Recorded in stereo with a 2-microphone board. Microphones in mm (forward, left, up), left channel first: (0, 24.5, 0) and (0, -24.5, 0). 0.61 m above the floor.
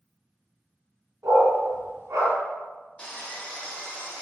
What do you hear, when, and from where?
1.2 s a dog barking: 90° right, 1.9 m
3.0 s sawing: 20° left (ahead or behind), 1.1 m